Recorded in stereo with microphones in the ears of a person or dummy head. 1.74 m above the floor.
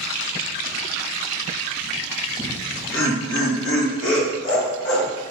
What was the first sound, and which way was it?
Laughter, 60° left (ahead or behind).